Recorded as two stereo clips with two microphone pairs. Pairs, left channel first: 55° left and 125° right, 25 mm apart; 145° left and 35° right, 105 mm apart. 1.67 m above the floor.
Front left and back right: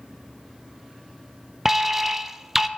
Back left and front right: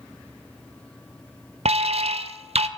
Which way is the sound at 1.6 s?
40° right.